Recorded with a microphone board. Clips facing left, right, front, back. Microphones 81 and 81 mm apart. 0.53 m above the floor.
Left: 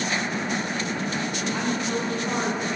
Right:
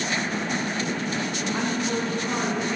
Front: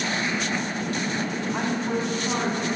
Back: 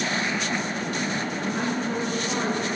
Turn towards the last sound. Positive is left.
turn(degrees=5)